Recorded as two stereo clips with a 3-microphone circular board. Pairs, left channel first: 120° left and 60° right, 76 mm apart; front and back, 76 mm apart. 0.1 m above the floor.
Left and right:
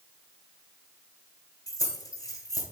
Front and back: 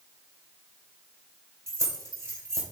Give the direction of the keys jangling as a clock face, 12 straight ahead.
7 o'clock.